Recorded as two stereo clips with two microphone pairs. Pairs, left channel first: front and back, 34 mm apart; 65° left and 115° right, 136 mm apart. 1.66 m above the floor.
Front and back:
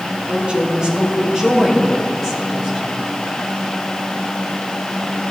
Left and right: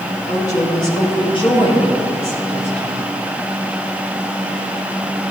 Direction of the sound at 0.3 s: 125° left.